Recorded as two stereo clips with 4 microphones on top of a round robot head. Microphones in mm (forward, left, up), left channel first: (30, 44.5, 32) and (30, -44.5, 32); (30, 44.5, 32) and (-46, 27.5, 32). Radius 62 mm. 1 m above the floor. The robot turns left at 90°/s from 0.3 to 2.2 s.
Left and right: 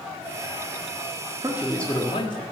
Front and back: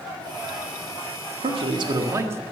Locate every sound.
1.4 s a man speaking: 155° right, 1.6 m; by 2.4 s 135° left, 1.6 m